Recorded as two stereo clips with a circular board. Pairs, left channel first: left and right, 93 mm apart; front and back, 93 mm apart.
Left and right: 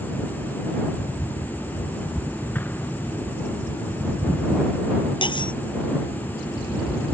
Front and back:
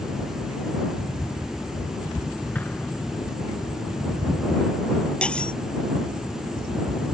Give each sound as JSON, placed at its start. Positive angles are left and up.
{"t": 2.5, "sound": "an explosion", "azimuth_deg": 50}
{"t": 5.2, "sound": "cutlery clinking", "azimuth_deg": 80}